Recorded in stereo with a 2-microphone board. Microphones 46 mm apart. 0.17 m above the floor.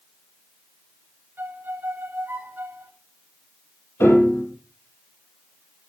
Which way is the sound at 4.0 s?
60° left (ahead or behind).